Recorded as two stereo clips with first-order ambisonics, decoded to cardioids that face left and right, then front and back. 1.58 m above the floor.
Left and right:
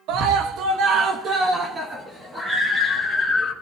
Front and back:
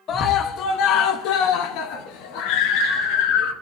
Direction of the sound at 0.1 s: 55° right.